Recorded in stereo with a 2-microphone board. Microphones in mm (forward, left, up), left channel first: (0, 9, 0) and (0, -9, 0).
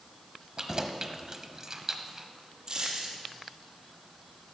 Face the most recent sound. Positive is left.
turn(degrees=-50)  # may be behind; listen again after turning